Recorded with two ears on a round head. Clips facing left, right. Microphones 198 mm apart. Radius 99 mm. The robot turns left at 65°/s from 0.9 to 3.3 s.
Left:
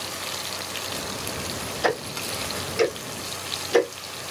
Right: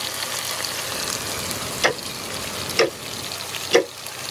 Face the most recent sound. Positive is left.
turn(degrees=-40)  # may be behind; listen again after turning